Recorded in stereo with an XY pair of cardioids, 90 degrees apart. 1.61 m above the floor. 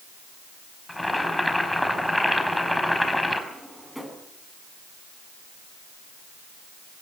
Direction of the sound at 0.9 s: 10° left.